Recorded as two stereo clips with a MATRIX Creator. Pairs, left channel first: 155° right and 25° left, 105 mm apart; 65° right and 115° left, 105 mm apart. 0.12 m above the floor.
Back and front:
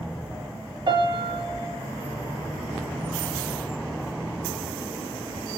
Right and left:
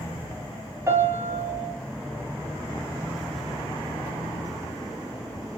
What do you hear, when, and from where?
0.9 s a piano: 55° left, 0.6 m